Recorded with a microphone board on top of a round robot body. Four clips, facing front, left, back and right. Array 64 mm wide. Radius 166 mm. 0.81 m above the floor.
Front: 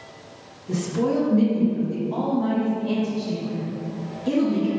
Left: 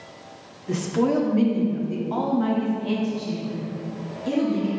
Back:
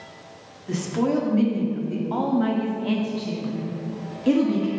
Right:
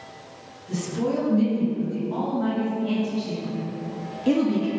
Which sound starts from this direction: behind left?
A woman speaking, at 0.7 s.